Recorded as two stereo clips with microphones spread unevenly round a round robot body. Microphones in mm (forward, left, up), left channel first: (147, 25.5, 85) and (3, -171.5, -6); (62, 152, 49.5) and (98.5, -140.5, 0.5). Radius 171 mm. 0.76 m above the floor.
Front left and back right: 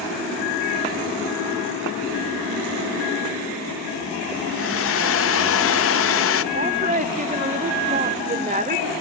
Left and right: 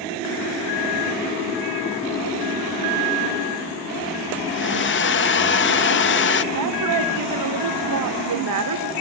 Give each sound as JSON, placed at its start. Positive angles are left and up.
{"t": 4.5, "sound": "a hair dryer", "azimuth_deg": 70, "distance_m": 1.2}
{"t": 6.5, "sound": "a woman speaking", "azimuth_deg": -70, "distance_m": 1.8}